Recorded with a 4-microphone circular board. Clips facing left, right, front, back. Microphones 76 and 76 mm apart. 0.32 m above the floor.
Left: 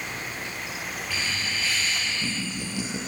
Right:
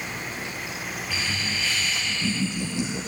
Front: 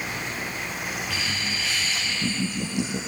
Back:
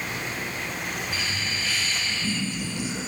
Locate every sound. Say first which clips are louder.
1.1 s laughter: right 1 dB, front 1 dB; straight ahead, 6.5 m; by 3.0 s 20° left, 5 m